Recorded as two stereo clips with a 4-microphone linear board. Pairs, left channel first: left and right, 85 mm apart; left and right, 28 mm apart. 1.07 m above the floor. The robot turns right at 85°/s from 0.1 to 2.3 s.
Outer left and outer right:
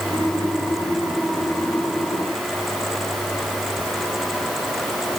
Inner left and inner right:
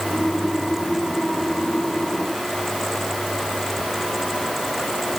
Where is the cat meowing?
No cat meowing in this recording.